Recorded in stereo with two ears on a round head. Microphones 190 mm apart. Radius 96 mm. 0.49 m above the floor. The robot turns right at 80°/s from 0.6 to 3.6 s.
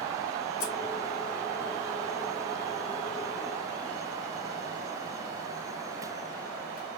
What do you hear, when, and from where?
0.6 s scissors: 65° left (ahead or behind), 2.5 m